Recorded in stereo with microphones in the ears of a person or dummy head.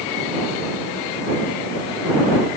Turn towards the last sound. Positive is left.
No sound to turn to.